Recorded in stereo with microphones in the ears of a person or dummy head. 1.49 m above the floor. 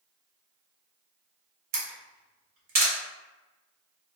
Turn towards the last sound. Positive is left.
turn(degrees=-50)  # may be behind; listen again after turning